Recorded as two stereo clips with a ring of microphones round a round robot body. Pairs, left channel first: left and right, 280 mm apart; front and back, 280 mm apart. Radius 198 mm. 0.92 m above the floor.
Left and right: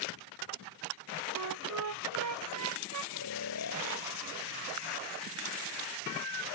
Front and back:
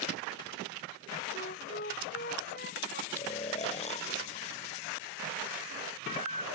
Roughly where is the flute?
Right.